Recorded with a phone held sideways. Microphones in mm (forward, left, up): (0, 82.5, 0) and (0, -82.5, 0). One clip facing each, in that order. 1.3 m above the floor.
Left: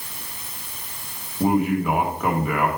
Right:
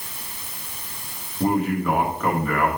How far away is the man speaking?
About 1.4 m.